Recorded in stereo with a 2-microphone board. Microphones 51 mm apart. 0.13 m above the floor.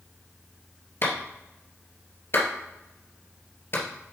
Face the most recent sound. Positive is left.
turn(degrees=45)  # may be behind; listen again after turning